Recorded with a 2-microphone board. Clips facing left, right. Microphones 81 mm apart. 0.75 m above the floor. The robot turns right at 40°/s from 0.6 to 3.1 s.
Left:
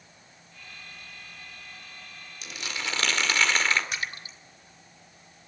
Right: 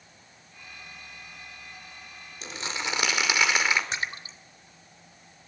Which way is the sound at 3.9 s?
30° right (ahead or behind).